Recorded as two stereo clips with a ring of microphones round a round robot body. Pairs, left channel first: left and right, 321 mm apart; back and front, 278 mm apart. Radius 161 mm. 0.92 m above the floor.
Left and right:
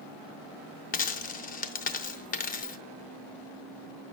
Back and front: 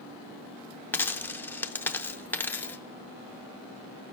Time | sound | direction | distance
0.9 | a dropped coin | 105° left | 0.5 m